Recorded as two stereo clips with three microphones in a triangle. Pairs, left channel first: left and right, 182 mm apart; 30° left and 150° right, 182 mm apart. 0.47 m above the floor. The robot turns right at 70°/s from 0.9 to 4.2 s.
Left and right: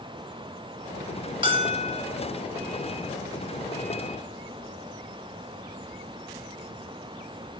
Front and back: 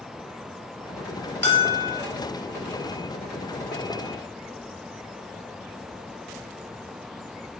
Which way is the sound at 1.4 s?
150° right.